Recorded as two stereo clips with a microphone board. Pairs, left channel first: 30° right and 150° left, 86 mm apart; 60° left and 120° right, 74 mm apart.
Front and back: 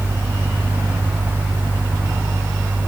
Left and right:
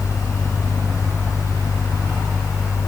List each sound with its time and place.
Only background noise.